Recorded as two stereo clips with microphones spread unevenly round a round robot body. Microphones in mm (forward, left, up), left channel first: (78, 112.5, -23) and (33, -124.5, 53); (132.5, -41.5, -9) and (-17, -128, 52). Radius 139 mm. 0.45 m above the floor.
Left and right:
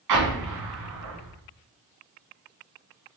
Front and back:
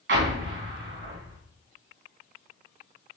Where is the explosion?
135° right, 3.5 m.